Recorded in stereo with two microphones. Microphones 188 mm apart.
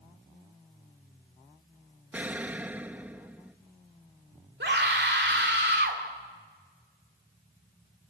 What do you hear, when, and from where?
2.1 s an explosion: 10° right (ahead or behind), 0.6 m
4.6 s a scream: 70° right (ahead or behind), 2.5 m